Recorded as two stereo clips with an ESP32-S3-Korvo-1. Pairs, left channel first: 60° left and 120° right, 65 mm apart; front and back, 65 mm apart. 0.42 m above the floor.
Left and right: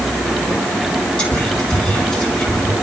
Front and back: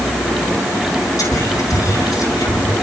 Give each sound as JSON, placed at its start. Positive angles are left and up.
{"t": 1.2, "sound": "whispering", "azimuth_deg": -15, "distance_m": 5.0}